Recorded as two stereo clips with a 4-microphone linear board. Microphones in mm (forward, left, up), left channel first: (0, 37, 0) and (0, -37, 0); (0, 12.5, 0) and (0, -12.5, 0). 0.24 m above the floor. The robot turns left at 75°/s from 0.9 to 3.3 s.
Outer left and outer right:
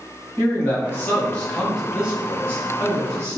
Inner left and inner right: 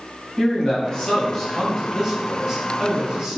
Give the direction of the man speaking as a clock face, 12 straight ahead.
10 o'clock.